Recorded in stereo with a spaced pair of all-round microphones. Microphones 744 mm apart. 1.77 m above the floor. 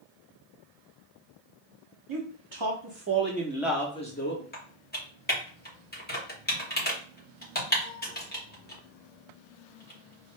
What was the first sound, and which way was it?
A man speaking, 40° right (ahead or behind).